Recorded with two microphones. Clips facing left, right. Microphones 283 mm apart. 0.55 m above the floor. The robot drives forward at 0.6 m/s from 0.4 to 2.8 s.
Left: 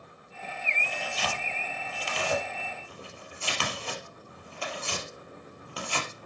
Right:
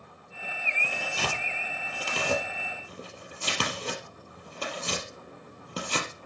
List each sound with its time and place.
0.8 s tearing paper: 55° right (ahead or behind), 4 m; by 6.1 s 45° right (ahead or behind), 4.5 m